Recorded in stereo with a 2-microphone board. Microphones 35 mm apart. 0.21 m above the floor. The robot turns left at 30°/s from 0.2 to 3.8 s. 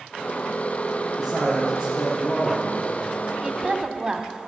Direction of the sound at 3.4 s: 20° right (ahead or behind).